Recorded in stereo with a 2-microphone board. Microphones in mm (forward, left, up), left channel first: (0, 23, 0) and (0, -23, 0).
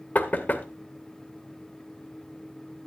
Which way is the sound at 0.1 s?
40° left (ahead or behind).